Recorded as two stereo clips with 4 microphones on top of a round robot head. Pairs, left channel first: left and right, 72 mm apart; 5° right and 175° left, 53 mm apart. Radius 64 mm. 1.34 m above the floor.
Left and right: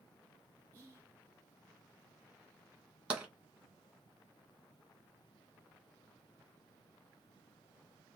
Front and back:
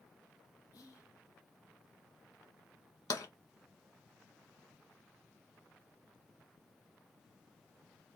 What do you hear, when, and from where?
0.7 s whispering: 30° right, 1.5 m
3.1 s tapping: 15° right, 1.7 m